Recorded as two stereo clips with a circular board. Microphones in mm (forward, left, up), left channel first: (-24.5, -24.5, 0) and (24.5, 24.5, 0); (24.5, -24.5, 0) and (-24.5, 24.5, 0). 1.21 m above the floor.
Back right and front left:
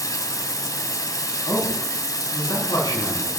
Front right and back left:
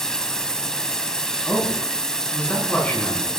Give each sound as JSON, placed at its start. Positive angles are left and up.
{"t": 0.0, "sound": "running water", "azimuth_deg": -125, "distance_m": 1.7}
{"t": 1.4, "sound": "a man speaking", "azimuth_deg": -115, "distance_m": 9.5}